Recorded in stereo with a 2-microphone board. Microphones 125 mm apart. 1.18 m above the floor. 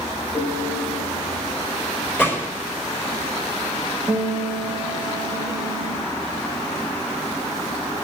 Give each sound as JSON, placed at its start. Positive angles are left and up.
{"t": 0.3, "sound": "a piano", "side_deg": 75, "distance_m": 6.5}
{"t": 2.2, "sound": "a gunshot", "side_deg": 20, "distance_m": 4.5}
{"t": 4.1, "sound": "a guitar", "side_deg": -10, "distance_m": 1.8}